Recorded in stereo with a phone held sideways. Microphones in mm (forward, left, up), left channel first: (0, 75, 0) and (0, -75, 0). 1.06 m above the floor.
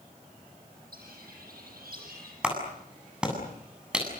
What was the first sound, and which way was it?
A bird, 75° right (ahead or behind).